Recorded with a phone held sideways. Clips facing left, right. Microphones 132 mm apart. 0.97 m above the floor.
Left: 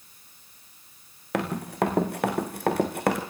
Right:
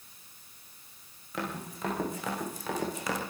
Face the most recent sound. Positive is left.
turn(degrees=60)  # may be behind; listen again after turning